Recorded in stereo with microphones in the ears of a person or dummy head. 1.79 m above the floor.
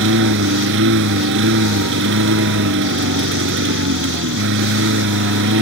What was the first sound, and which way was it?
A lawn mower, 65° right (ahead or behind).